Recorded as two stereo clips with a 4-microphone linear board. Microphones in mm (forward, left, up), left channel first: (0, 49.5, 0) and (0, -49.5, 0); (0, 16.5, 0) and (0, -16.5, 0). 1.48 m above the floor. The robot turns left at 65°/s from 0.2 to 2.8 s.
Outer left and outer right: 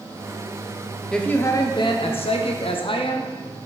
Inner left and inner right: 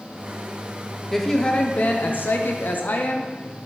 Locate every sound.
1.1 s a woman speaking: 175° left, 0.8 m; by 3.3 s 65° left, 0.8 m